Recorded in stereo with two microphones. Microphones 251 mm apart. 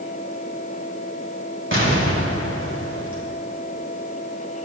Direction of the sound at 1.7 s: 50° right (ahead or behind).